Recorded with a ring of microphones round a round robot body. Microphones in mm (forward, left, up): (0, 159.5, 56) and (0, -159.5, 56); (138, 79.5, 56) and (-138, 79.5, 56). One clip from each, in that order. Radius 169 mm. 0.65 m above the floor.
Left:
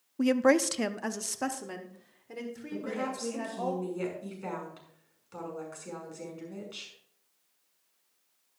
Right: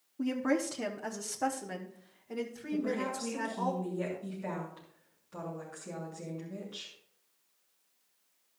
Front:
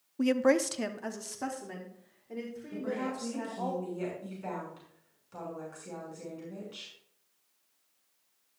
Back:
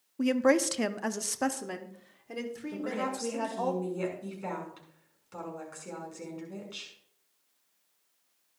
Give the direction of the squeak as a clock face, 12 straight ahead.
I don't hear a squeak.